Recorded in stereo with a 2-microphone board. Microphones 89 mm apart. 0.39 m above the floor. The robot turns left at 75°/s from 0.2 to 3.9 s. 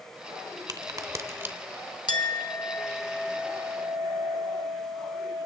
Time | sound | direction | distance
0.7 | a crack | 45° right (ahead or behind) | 0.9 m
2.1 | a clink | 85° left | 1.1 m